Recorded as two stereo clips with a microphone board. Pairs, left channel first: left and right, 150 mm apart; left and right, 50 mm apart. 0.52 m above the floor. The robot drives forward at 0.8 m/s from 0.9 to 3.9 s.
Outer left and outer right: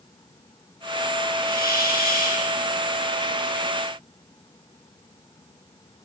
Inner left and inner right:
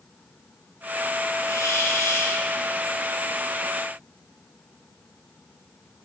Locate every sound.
1.4 s a hiss: 85° left, 6 m; by 2.5 s 80° left, 6 m